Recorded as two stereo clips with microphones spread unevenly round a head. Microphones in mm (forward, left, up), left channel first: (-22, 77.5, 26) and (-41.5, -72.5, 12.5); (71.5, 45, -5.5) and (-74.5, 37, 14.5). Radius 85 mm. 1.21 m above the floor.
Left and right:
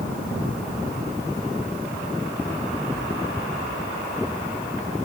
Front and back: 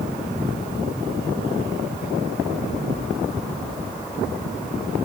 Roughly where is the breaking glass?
I don't hear breaking glass.